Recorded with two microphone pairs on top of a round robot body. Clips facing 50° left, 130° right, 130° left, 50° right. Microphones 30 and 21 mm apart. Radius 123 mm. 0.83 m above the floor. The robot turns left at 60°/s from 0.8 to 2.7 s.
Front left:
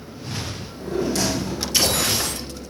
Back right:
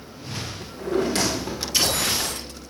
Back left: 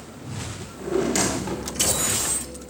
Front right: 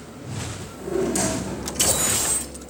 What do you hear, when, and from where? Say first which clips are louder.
0.6 s a drawer: back right 2 dB, back left 1 dB; 160° right, 1.2 m; by 1.7 s 145° left, 1.2 m